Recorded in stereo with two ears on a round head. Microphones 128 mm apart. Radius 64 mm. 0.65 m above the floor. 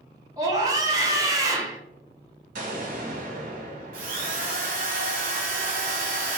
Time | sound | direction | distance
0.4 | a scream | 25° right (ahead or behind) | 0.8 m
2.5 | an explosion | 65° right (ahead or behind) | 1.2 m
3.9 | a drill | 65° right (ahead or behind) | 1.0 m